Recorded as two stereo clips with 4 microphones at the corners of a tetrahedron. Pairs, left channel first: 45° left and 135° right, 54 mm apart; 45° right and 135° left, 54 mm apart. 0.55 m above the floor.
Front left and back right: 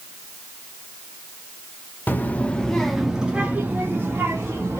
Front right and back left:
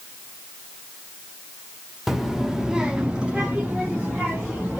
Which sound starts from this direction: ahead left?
A child speaking, at 2.1 s.